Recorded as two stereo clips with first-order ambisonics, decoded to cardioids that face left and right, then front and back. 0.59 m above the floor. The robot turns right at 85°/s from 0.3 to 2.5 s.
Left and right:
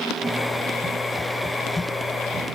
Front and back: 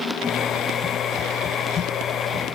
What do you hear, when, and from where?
Only background noise.